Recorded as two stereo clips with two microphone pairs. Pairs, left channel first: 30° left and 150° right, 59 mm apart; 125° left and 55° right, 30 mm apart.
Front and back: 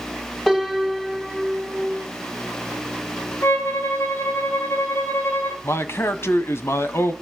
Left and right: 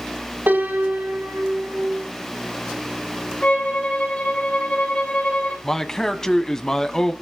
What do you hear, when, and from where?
0.5 s a piano: 55° right, 7 m
3.4 s a violin: 75° left, 5 m
5.6 s a man speaking: 60° left, 1.5 m